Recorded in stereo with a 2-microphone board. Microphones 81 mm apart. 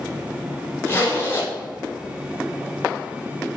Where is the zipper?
25° left (ahead or behind), 1.6 m.